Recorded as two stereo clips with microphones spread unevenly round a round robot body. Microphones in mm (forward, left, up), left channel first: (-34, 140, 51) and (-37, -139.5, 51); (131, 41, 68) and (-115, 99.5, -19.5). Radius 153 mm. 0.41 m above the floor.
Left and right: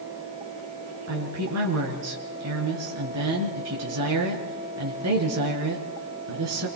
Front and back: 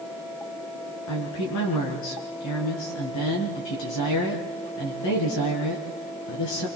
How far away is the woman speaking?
About 6 m.